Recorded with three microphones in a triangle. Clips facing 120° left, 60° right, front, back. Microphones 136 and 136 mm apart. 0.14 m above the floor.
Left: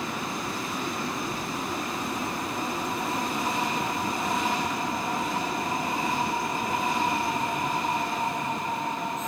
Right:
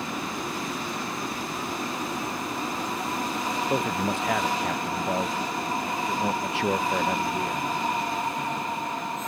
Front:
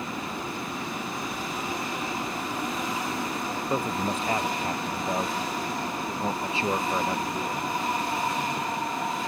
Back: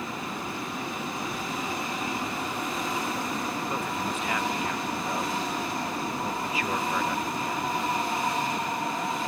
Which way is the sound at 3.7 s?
55° right.